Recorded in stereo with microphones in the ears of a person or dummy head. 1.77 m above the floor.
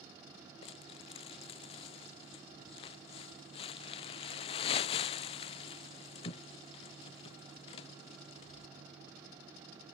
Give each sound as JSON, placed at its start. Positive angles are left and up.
{"t": 0.6, "sound": "crumpling", "side_deg": 35}